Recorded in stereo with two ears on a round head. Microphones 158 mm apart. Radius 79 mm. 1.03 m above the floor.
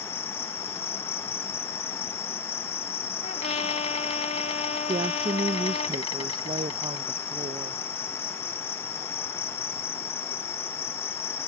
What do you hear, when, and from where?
0.0 s an insect: 30° left (ahead or behind)
3.2 s a trumpet: 40° left (ahead or behind)
4.9 s a woman speaking: 30° right (ahead or behind)